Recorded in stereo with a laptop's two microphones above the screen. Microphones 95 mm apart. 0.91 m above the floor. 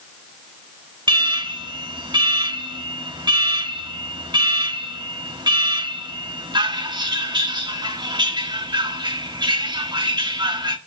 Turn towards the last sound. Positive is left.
turn(degrees=-55)  # may be behind; listen again after turning